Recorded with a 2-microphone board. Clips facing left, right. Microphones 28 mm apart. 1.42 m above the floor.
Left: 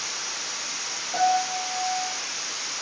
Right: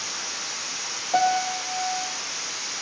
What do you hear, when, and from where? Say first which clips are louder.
1.1 s a piano: right 1 dB; 40° right (ahead or behind), 4.5 m